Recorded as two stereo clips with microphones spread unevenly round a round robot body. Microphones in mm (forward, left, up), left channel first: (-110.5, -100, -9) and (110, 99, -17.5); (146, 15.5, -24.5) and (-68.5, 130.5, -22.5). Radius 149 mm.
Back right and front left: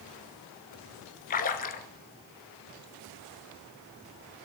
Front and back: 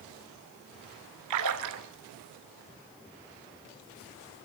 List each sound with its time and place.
1.3 s a splash: 160° left, 1.1 m